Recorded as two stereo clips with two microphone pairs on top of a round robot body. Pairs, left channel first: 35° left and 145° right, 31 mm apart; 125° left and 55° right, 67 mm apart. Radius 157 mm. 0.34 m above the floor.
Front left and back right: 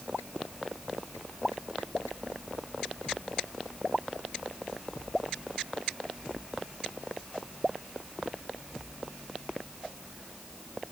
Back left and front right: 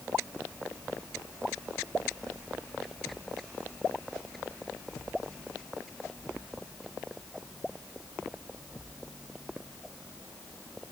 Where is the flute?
I don't hear a flute.